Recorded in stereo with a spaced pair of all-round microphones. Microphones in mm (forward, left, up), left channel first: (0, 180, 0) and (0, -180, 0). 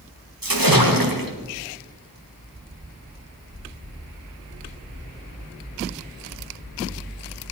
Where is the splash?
70° right (ahead or behind), 1.9 m.